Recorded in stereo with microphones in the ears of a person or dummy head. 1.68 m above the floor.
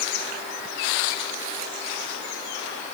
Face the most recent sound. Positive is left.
No sound to turn to.